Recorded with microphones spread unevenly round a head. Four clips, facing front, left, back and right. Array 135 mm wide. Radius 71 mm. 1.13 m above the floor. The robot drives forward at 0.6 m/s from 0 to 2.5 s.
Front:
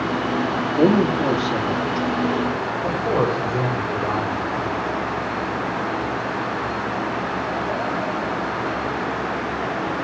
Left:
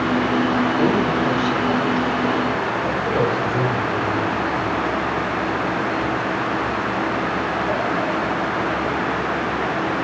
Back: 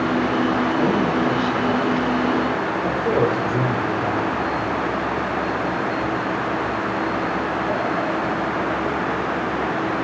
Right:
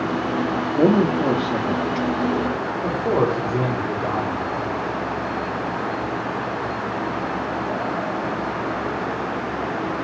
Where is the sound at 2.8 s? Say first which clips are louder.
Right 3 dB, back 1 dB; 120° right, 5 m.